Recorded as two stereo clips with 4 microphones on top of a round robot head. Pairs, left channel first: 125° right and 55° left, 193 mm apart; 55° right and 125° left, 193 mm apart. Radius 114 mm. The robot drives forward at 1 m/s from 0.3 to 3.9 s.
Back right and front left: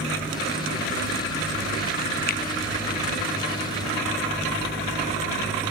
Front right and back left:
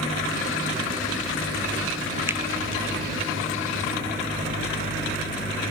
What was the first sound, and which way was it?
A finger snap, 155° right.